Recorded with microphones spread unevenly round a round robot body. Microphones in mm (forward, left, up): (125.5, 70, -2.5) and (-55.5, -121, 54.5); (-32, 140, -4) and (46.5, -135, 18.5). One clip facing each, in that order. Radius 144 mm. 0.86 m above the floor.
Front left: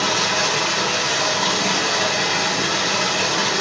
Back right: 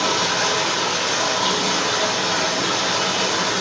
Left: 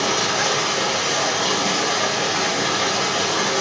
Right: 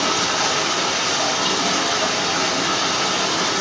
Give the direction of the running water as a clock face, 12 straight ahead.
12 o'clock.